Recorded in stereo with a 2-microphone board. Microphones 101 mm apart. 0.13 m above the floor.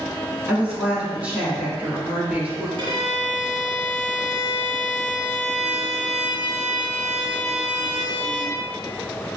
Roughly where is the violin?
Right.